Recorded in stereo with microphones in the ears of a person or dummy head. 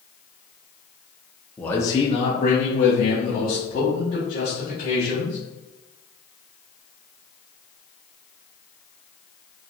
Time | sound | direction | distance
1.6 | a man speaking | 5° left (ahead or behind) | 0.6 m